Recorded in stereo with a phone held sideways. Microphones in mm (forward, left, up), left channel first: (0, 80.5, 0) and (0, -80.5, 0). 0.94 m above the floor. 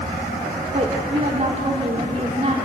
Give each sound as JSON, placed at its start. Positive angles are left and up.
{"t": 0.7, "sound": "a woman speaking", "side_deg": -45, "distance_m": 2.0}